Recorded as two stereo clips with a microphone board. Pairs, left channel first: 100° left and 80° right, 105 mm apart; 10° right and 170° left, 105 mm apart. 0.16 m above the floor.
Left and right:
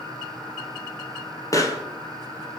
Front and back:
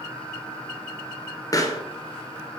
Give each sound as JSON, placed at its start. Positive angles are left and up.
{"t": 1.5, "sound": "a pop", "azimuth_deg": 40, "distance_m": 1.0}